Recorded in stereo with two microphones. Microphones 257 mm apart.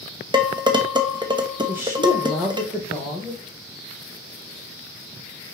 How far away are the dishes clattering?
About 0.9 m.